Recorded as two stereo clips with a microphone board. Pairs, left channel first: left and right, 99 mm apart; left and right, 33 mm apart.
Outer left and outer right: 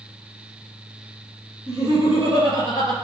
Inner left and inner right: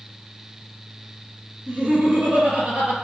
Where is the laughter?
45° right (ahead or behind), 2.5 m.